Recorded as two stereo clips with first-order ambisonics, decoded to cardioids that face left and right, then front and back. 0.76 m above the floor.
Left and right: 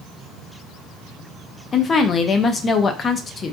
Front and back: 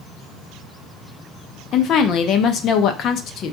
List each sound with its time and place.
1.7 s a woman speaking: 35° left, 0.5 m